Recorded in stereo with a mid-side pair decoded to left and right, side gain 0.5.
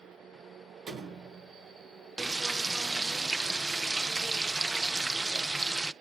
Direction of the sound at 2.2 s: 20° right.